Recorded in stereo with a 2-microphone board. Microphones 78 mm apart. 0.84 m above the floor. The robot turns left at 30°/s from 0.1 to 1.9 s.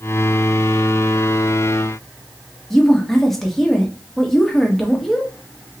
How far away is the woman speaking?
About 1.2 m.